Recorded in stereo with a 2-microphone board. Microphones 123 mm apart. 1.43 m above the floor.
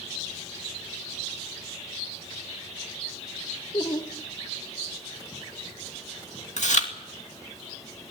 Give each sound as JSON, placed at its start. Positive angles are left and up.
{"t": 3.7, "sound": "laughter", "side_deg": 40, "distance_m": 1.8}
{"t": 6.6, "sound": "chewing", "side_deg": 75, "distance_m": 2.5}